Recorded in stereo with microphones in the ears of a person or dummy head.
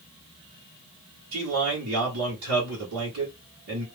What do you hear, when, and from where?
1.3 s a man speaking: 85° right, 1.5 m